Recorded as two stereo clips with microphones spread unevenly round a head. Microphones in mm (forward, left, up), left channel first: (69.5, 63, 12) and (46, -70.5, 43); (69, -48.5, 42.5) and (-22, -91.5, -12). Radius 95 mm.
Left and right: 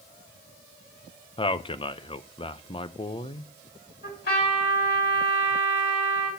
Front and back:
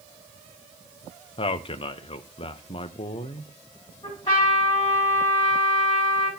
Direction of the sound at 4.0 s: 90° left.